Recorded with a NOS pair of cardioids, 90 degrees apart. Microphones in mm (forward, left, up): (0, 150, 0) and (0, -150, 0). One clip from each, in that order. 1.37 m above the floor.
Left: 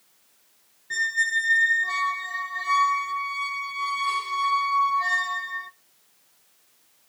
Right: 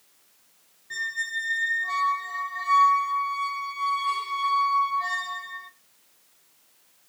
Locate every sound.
0.9 s a squeak: 25° left, 0.8 m